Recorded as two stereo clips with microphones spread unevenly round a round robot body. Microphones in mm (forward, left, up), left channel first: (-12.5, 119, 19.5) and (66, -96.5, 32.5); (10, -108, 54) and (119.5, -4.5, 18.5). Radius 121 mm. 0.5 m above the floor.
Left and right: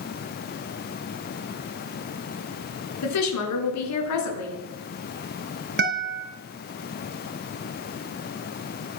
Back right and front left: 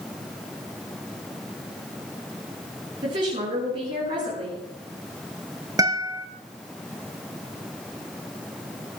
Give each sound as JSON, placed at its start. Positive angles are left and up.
{"t": 3.0, "sound": "a woman speaking", "azimuth_deg": 110, "distance_m": 6.5}
{"t": 5.8, "sound": "a guitar", "azimuth_deg": -25, "distance_m": 3.0}